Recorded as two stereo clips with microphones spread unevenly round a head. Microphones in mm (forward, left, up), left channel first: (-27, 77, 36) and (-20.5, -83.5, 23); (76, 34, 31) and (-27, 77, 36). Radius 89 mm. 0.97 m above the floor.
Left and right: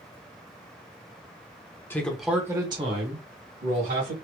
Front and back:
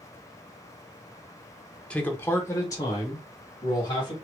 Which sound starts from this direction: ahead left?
A man speaking, at 1.9 s.